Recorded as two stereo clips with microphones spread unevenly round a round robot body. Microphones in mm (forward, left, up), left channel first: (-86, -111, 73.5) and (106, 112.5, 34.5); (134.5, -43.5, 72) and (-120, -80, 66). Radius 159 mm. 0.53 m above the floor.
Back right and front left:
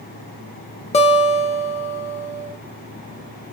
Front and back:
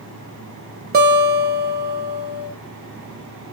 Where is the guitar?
160° left, 0.5 m.